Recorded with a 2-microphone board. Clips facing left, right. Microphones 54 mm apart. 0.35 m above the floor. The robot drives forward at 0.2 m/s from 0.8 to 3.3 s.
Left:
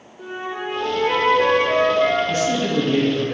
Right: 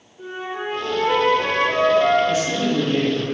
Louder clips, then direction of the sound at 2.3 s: Even; 50° left (ahead or behind).